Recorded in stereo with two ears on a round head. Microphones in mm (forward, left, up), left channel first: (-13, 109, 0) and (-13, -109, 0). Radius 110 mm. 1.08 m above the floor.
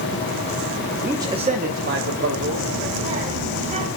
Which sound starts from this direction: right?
A child speaking, at 2.4 s.